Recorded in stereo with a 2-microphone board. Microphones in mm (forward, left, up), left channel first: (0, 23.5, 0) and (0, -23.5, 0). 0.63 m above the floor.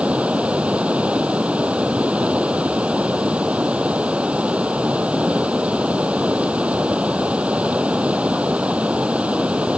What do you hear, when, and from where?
0.0 s running water: 25° right (ahead or behind)